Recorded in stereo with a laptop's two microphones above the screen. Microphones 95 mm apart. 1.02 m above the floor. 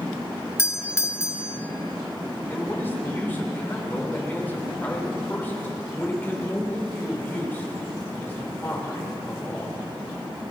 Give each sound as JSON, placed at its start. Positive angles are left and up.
{"t": 0.6, "sound": "a doorbell", "side_deg": 25, "distance_m": 0.6}
{"t": 2.5, "sound": "a man speaking", "side_deg": 20, "distance_m": 4.5}